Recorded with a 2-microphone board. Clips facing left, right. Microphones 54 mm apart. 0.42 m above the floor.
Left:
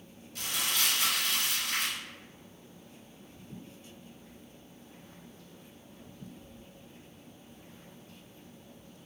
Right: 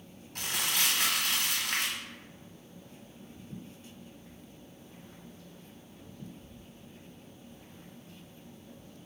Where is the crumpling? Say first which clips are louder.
Right 1 dB; 55° right (ahead or behind), 0.9 m.